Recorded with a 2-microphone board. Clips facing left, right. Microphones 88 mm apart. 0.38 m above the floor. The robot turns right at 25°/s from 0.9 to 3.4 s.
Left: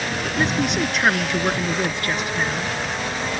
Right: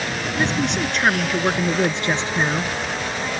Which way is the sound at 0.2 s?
175° left.